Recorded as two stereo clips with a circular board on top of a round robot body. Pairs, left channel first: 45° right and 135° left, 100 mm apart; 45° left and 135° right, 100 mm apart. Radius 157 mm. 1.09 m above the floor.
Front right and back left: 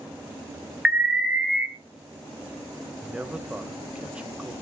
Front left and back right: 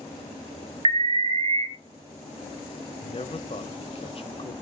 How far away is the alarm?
About 2 m.